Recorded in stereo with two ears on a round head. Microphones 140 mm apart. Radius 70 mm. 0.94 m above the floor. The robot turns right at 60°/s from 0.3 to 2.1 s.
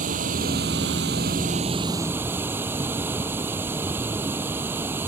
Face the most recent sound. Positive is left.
turn(degrees=-15)